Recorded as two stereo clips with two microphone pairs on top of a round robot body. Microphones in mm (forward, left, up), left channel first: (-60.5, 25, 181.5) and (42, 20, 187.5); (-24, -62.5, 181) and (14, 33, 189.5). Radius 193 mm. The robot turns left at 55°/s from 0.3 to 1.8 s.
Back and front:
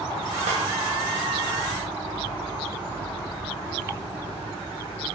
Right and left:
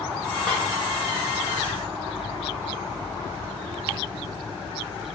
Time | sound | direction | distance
0.5 | a snare drum | 25° right | 1.0 m